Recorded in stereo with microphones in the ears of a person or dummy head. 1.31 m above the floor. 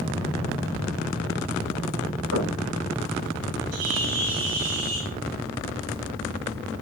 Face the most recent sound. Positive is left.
turn(degrees=-75)  # may be behind; listen again after turning